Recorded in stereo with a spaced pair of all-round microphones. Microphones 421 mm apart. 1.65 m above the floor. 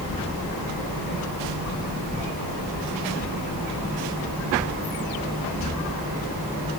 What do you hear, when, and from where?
Only background noise.